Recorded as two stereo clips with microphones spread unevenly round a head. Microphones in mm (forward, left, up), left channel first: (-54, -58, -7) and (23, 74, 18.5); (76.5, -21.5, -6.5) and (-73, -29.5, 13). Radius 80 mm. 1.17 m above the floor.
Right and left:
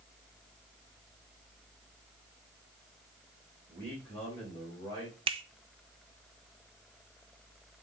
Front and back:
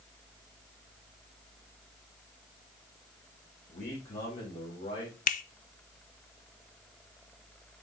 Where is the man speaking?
40° right, 4 m; by 5.2 s 50° right, 4.5 m.